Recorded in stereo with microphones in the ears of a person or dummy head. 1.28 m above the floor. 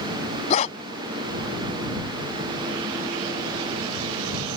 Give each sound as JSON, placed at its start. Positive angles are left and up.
{"t": 0.5, "sound": "a dog barking", "side_deg": 45}